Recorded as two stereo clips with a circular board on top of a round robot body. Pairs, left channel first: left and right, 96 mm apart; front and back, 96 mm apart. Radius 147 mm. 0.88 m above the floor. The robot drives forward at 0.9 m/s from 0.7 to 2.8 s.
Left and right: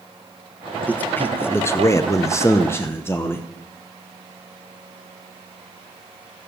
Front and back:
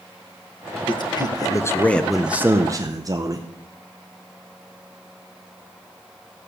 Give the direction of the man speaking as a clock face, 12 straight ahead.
11 o'clock.